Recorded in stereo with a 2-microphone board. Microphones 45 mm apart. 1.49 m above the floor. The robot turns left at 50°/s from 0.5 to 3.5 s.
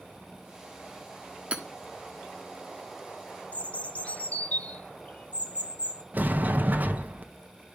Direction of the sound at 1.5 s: 30° right (ahead or behind).